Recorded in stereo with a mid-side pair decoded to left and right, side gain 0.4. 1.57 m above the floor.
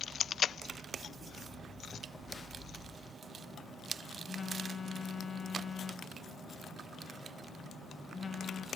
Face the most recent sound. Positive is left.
turn(degrees=35)